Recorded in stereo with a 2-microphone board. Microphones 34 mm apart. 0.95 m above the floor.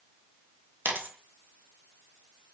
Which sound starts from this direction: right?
A dropped coin, at 0.8 s.